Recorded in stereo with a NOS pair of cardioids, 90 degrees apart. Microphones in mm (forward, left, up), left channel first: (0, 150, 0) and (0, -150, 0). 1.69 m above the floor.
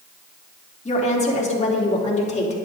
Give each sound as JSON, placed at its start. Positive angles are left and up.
{"t": 0.8, "sound": "a woman speaking", "azimuth_deg": 25, "distance_m": 3.0}